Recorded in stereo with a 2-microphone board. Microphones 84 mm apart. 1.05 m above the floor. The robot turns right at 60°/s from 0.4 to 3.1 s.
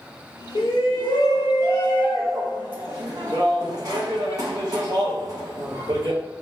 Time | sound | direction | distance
0.6 | a shout | 75° left | 0.9 m